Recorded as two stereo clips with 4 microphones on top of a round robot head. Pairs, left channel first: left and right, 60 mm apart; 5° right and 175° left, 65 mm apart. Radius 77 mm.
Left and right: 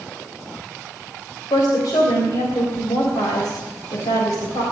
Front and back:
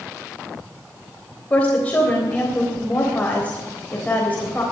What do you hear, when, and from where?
1.5 s a woman speaking: 65° left, 3 m